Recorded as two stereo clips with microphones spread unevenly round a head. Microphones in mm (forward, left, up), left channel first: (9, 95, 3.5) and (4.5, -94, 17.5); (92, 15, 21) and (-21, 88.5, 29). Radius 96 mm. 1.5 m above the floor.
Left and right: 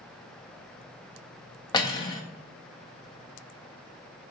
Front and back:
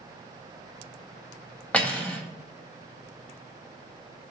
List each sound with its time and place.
1.7 s cutlery clinking: 40° left, 0.6 m